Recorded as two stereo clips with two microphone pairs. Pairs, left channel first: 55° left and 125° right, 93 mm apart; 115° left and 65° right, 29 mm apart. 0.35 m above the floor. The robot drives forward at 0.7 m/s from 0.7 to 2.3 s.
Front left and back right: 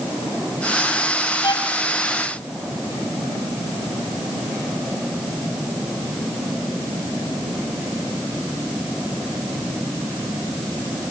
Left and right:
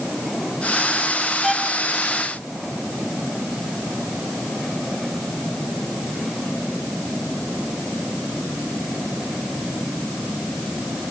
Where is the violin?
30° left, 1.8 m; by 1.7 s 35° left, 1.7 m.